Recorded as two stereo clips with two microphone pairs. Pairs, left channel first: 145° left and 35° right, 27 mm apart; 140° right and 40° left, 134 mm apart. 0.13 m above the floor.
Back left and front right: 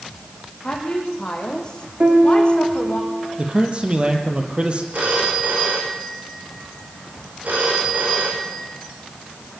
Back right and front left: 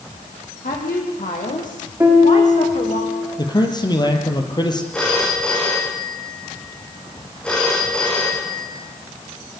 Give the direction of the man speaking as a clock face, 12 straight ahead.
3 o'clock.